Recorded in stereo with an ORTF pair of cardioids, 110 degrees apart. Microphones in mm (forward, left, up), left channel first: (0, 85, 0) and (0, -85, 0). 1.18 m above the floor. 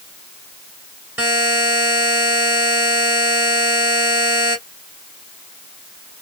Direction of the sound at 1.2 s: 10° right.